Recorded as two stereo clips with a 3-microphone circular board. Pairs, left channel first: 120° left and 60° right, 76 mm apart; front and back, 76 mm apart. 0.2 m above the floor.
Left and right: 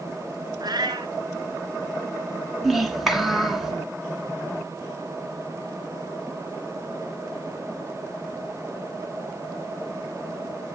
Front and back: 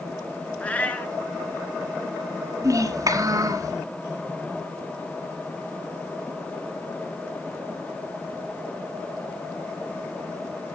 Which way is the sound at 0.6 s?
70° right.